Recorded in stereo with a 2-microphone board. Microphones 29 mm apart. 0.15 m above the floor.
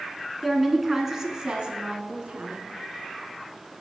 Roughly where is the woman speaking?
Centre.